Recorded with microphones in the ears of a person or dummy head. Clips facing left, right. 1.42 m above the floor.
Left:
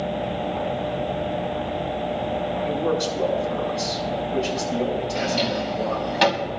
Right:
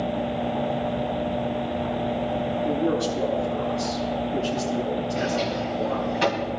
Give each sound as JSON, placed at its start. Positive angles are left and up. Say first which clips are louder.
{"t": 2.6, "sound": "a man speaking", "louder": "right 1 dB", "side_deg": 75, "distance_m": 7.5}
{"t": 5.2, "sound": "a drawer", "louder": "left 1 dB", "side_deg": 75, "distance_m": 3.5}